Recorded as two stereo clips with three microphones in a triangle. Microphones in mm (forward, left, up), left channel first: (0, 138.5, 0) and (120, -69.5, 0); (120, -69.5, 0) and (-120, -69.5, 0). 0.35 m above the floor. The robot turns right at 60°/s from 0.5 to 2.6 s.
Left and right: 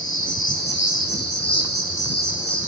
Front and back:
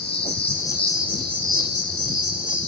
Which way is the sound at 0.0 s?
65° left.